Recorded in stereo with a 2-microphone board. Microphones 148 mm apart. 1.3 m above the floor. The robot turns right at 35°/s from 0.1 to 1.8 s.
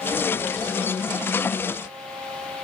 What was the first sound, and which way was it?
Only background noise.